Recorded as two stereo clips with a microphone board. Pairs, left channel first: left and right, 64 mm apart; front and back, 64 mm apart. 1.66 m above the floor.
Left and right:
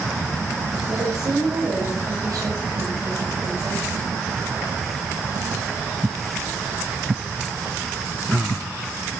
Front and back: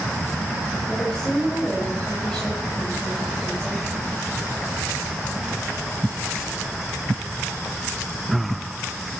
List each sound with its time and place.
0.9 s a woman speaking: 80° right, 7 m